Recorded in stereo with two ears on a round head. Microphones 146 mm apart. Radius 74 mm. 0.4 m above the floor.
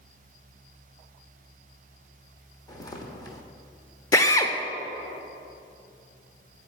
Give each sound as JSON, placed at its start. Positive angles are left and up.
{"t": 2.7, "sound": "footsteps", "side_deg": 25, "distance_m": 1.2}
{"t": 4.1, "sound": "a drill", "side_deg": 20, "distance_m": 0.5}